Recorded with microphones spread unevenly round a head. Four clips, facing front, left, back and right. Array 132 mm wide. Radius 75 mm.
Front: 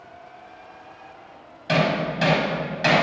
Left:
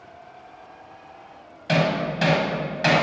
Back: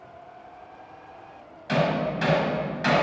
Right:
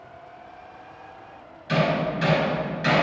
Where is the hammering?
55° left, 4.5 m.